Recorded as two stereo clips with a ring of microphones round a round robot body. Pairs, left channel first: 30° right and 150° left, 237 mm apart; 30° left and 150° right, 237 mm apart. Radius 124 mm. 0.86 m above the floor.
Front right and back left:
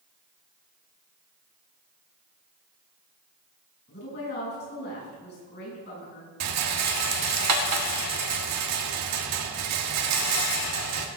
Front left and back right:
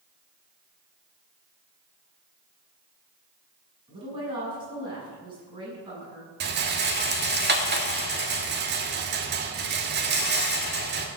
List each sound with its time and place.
3.9 s a woman speaking: 80° right, 7.5 m
6.4 s a rattle: 160° left, 1.5 m